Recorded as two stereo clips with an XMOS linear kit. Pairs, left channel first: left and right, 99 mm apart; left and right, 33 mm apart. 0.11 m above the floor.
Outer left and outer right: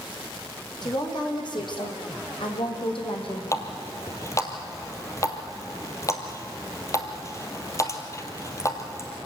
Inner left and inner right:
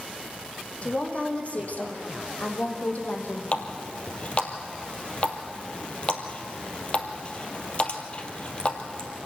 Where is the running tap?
30° left (ahead or behind), 2 m.